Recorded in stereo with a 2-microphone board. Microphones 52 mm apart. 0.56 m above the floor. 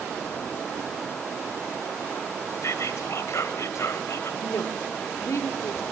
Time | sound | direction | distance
2.6 | whispering | 60° left (ahead or behind) | 2 m
4.4 | a woman speaking | 60° left (ahead or behind) | 1.3 m